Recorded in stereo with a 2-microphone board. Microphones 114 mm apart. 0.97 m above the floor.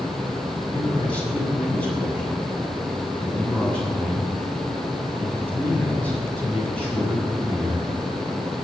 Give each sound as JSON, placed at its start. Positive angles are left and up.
{"t": 0.7, "sound": "a man speaking", "side_deg": 10, "distance_m": 6.5}